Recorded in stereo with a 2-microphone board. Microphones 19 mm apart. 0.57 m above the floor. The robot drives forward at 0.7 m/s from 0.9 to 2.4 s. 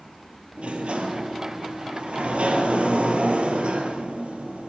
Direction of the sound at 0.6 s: 85° right.